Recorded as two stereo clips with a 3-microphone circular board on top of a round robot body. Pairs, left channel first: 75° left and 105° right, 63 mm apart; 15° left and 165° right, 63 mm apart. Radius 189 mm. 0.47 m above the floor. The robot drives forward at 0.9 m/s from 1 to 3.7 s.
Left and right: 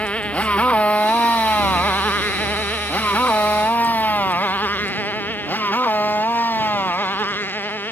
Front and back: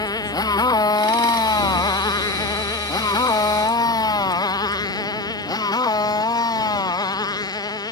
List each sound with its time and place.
0.0 s a motorcycle: 5° left; by 7.9 s 15° left